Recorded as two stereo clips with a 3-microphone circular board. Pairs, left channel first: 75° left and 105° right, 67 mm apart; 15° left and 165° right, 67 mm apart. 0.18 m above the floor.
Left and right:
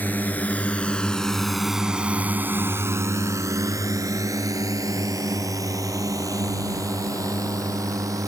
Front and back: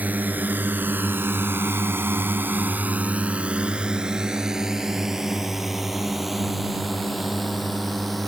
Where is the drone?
130° left; by 8.3 s 75° right.